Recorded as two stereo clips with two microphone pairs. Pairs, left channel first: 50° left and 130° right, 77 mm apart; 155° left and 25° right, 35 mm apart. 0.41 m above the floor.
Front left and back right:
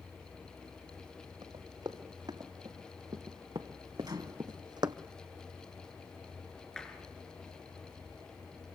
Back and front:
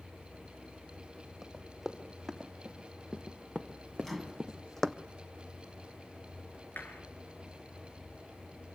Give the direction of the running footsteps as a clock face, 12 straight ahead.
4 o'clock.